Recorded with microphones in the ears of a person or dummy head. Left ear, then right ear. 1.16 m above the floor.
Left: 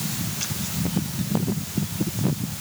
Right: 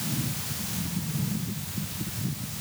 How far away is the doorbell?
I don't hear a doorbell.